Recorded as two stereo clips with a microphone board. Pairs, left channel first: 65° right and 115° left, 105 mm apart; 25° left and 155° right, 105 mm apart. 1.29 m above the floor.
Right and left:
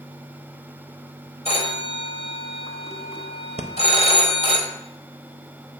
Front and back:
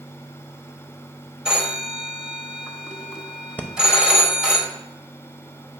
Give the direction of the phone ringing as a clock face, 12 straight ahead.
3 o'clock.